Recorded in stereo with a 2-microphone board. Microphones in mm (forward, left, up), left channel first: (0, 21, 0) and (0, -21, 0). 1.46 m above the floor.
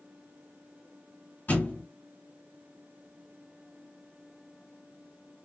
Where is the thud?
45° left (ahead or behind), 1.9 m.